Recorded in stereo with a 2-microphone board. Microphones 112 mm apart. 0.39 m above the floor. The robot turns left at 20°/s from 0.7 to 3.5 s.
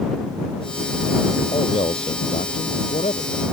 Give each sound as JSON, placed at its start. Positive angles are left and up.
{"t": 1.5, "sound": "a man speaking", "azimuth_deg": 130}